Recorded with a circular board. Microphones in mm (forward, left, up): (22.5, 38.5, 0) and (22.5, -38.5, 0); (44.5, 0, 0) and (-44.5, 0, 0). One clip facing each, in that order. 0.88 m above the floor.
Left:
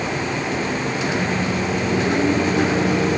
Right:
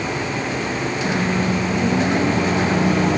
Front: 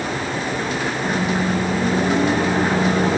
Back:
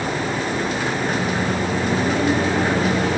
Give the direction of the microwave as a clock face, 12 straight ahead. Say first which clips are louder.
Right 3 dB, front 1 dB; 2 o'clock.